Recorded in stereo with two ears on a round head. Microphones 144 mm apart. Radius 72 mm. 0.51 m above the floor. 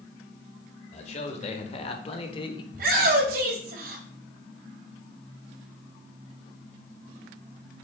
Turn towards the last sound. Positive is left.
turn(degrees=-60)  # may be behind; listen again after turning